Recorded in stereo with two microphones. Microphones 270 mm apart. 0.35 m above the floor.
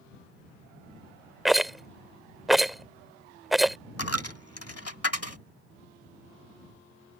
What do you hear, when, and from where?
1.4 s a rattle: centre (ahead or behind)
4.0 s a dropped coin: 65° left (ahead or behind)